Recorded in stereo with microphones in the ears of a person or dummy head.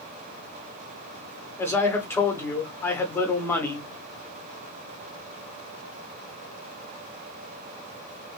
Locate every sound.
1.6 s a man speaking: 10° left (ahead or behind), 1.3 m